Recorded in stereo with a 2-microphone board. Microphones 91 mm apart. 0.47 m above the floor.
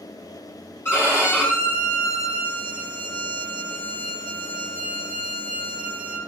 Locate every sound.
0.8 s a violin: 25° left (ahead or behind), 6 m